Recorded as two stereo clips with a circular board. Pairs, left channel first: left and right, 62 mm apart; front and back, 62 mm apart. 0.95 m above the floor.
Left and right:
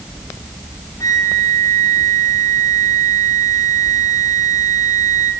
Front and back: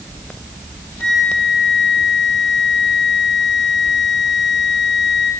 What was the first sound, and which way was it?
A flute, 80° left.